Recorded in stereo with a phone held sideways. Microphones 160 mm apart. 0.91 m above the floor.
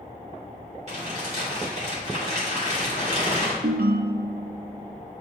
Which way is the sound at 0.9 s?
50° right (ahead or behind).